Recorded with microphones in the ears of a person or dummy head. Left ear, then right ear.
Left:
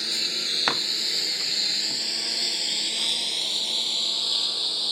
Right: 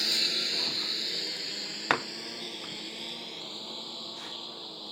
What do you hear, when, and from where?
0.0 s a lawn mower: 5° right (ahead or behind); by 4.9 s 60° left (ahead or behind)